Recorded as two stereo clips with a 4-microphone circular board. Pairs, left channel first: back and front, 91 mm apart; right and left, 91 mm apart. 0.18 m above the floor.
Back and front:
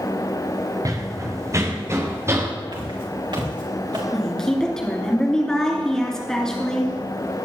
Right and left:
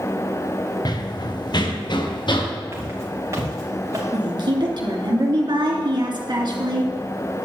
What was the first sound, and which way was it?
Running footsteps, 50° right.